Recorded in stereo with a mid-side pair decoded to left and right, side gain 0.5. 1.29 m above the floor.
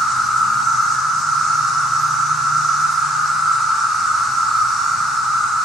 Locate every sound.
0.0 s an insect: 55° left, 1.5 m